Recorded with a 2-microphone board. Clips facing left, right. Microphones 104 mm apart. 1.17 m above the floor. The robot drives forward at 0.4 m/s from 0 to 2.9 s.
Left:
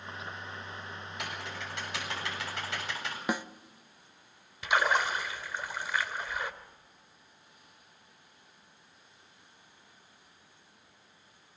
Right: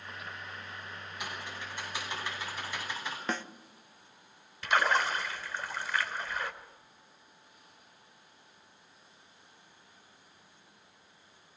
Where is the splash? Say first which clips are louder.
Even; 15° left (ahead or behind), 3 m.